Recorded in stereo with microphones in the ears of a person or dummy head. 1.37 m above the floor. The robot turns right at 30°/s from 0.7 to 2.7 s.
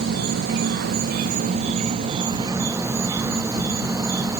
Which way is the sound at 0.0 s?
80° right.